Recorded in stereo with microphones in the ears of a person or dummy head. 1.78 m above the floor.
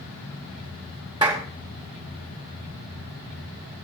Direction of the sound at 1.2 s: 20° right (ahead or behind).